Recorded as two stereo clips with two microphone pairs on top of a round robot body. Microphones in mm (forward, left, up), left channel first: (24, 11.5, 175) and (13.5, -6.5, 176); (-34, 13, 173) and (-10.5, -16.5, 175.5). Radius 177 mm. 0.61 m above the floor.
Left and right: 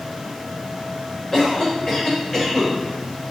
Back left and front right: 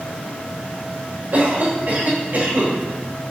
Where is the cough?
10° right, 3 m.